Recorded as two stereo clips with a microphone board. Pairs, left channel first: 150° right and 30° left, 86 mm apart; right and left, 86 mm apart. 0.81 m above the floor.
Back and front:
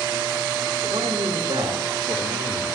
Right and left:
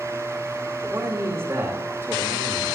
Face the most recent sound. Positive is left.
turn(degrees=35)